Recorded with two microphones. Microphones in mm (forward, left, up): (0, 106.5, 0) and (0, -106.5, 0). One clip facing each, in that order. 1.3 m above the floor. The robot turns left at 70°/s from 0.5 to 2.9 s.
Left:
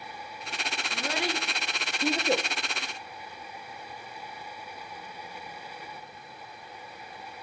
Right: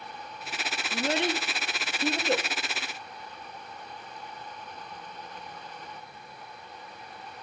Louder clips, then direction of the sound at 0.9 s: Right 5 dB; 30° right (ahead or behind).